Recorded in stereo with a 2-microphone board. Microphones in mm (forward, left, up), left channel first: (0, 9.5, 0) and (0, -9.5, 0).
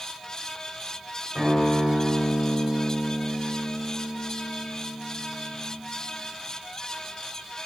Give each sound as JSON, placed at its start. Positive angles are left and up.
{"t": 1.4, "sound": "a guitar", "side_deg": -50, "distance_m": 9.0}